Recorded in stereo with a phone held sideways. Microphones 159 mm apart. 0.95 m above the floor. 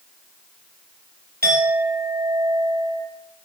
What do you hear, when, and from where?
1.4 s a clink: 80° right, 2.5 m